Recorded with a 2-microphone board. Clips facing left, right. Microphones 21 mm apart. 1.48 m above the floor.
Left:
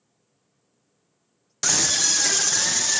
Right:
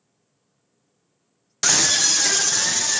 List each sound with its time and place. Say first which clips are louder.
1.6 s a scream: right 3 dB; 25° right (ahead or behind), 1.0 m; by 3.0 s centre (ahead or behind), 2 m